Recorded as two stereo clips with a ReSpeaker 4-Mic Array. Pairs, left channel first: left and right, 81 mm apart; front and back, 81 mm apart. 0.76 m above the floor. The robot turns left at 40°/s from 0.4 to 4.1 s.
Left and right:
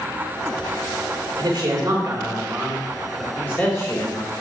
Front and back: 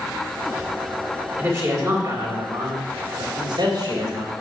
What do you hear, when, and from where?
1.4 s a man speaking: 120° right, 3 m; by 4.3 s 135° left, 3 m